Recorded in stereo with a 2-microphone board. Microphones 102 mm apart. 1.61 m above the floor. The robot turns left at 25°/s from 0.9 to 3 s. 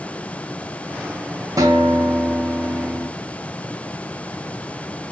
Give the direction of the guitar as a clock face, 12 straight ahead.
5 o'clock.